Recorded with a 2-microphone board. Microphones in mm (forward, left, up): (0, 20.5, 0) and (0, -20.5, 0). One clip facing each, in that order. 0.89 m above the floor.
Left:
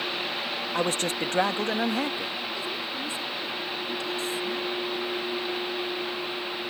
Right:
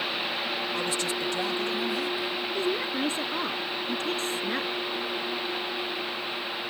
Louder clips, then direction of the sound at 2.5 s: Right 4 dB; 55° right (ahead or behind).